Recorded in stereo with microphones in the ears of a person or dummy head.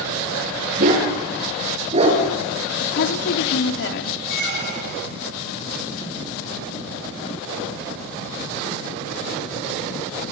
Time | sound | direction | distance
0.8 | a dog barking | 45° right (ahead or behind) | 7.5 m
2.8 | a woman speaking | 60° left (ahead or behind) | 2.5 m
4.3 | a squeak | 55° right (ahead or behind) | 5 m